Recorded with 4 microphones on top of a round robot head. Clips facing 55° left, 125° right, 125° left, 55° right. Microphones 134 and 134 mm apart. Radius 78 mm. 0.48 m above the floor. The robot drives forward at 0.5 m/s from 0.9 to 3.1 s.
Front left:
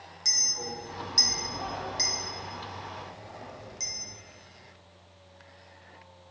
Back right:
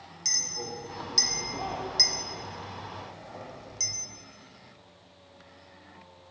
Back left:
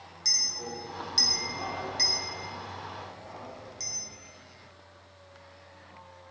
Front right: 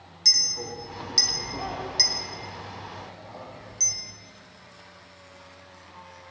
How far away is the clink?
About 1.1 m.